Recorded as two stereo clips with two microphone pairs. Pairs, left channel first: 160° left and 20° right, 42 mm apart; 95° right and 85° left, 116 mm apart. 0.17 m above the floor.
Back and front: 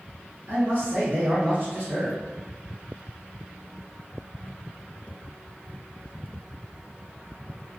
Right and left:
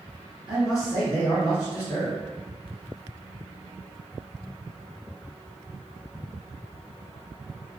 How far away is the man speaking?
About 1.7 m.